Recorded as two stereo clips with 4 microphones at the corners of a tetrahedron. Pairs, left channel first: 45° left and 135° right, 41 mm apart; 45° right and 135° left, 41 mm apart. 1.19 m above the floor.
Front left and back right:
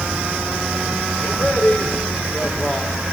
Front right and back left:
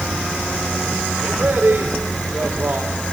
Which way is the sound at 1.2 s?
90° left.